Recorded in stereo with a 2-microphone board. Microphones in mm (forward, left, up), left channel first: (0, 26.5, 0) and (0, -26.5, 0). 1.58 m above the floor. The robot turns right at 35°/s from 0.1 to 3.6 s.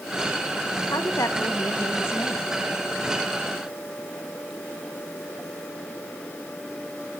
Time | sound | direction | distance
0.9 | a woman speaking | 90° left | 1.8 m